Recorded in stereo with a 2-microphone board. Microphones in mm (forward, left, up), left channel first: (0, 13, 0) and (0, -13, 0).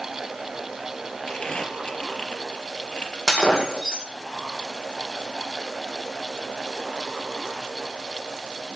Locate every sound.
1.3 s crumpling: 30° left (ahead or behind), 3 m
3.3 s breaking glass: 10° left (ahead or behind), 7.5 m